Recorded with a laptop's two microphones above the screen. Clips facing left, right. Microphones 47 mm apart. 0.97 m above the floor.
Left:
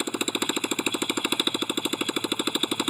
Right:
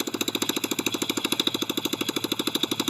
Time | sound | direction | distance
0.0 | a motorcycle | 10° left (ahead or behind) | ?